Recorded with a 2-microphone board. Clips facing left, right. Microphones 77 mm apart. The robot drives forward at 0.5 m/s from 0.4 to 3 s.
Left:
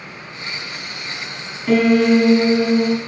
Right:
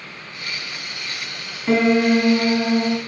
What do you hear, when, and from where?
1.7 s a piano: 15° right (ahead or behind), 1.5 m; by 3.0 s 25° right (ahead or behind), 0.9 m